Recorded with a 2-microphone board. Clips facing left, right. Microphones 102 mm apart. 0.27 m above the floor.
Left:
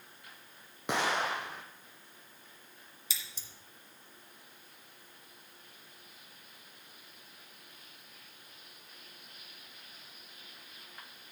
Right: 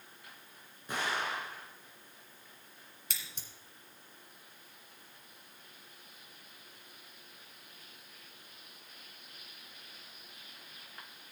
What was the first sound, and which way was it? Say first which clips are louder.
An explosion: left 4 dB; 85° left.